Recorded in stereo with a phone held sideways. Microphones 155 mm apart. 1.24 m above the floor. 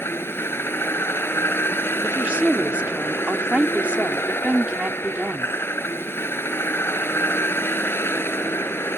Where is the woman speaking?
10° right (ahead or behind).